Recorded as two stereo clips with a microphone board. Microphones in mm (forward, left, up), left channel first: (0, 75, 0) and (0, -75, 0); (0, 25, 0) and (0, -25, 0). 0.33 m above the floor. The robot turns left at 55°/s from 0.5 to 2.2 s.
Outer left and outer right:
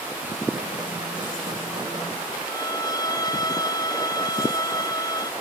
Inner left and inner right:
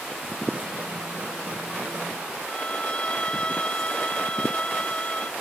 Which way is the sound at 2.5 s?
25° left (ahead or behind).